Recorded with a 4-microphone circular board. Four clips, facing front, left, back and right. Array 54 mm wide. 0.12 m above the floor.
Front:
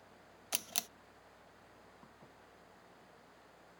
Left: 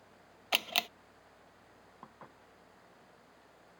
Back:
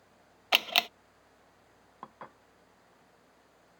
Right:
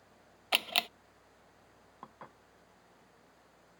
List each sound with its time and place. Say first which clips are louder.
0.5 s a camera shutter: right 1 dB, back 17 dB; 175° right
2.0 s dishes clattering: right 3 dB, back 11 dB; 170° right